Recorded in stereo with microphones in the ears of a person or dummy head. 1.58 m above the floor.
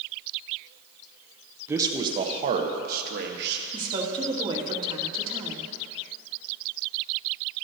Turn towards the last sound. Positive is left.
turn(degrees=-25)  # may be behind; listen again after turning